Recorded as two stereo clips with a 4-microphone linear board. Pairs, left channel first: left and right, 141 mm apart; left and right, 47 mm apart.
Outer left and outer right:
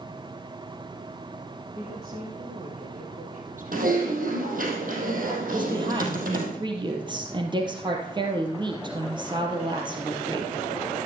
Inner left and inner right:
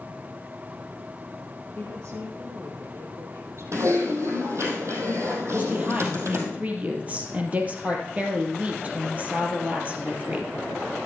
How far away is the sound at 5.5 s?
About 2.5 m.